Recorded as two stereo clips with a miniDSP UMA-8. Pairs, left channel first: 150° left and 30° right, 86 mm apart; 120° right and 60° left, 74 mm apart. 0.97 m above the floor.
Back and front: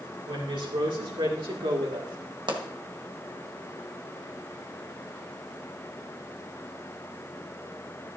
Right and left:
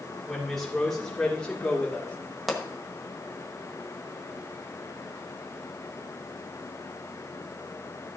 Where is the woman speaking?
30° right, 3 m; by 2.2 s 55° right, 1.9 m.